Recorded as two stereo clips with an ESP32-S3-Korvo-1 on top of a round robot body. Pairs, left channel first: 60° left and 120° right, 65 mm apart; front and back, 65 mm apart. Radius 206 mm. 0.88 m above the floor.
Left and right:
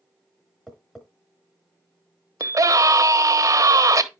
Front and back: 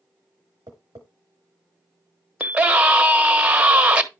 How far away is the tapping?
About 0.7 m.